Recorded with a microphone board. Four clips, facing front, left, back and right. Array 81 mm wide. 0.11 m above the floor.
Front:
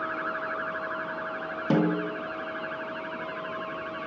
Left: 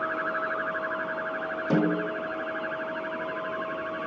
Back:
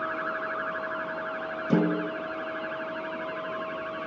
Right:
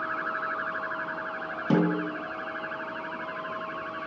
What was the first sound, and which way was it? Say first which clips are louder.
A snare drum: even, even; 30° right.